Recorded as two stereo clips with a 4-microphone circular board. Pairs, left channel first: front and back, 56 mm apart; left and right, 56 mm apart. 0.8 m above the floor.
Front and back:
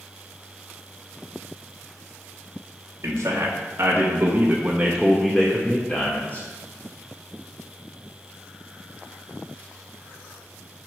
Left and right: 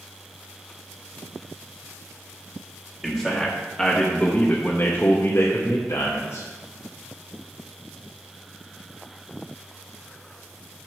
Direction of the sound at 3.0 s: 175° right.